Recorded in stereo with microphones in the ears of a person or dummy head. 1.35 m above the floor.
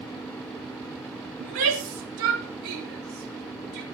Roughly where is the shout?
Right.